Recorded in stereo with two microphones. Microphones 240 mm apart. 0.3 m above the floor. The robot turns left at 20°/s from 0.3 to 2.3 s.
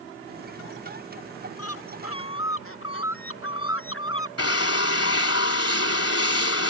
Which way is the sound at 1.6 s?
75° left (ahead or behind).